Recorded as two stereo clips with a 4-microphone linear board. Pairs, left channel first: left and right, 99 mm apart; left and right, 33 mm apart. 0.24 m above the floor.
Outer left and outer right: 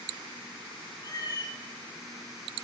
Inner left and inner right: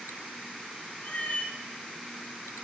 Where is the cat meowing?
45° left (ahead or behind), 1.2 m.